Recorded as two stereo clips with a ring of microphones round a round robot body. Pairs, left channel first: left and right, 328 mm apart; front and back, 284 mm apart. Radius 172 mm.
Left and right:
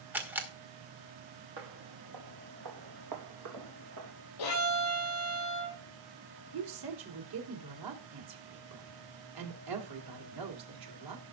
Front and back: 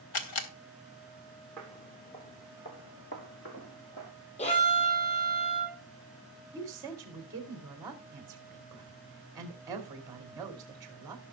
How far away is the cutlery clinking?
No cutlery clinking in this recording.